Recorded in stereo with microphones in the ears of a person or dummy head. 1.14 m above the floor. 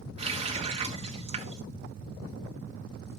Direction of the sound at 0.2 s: 35° right (ahead or behind).